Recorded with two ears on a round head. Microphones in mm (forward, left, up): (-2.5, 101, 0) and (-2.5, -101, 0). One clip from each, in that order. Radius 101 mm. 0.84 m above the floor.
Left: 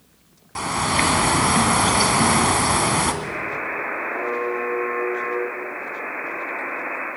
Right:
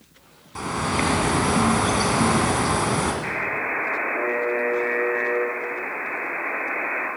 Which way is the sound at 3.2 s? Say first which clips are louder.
Right 1 dB; 20° right (ahead or behind).